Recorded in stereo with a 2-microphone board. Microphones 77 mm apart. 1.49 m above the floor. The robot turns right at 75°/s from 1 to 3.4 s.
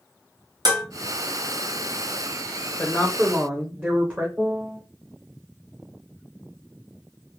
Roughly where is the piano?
Centre.